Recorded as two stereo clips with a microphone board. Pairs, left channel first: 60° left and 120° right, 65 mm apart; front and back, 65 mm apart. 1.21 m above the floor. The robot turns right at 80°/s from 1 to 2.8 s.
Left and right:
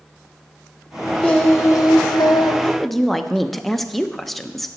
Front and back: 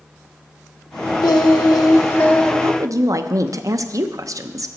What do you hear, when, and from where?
1.2 s singing: 15° right, 0.9 m; by 2.5 s 90° left, 0.9 m
2.6 s a woman speaking: 130° left, 0.6 m; by 4.7 s 145° left, 0.6 m